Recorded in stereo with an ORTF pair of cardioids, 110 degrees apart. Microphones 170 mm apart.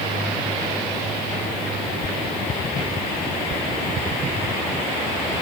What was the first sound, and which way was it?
Only background noise.